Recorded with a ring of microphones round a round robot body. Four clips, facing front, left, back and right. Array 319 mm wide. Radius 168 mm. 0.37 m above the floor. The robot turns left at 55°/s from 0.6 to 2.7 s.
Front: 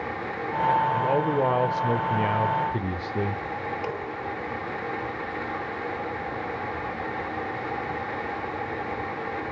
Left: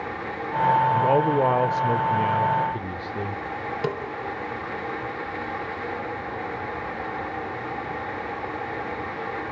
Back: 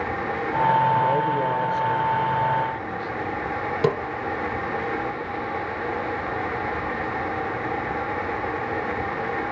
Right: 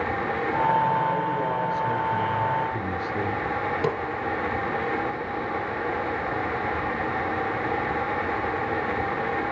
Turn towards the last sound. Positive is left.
turn(degrees=180)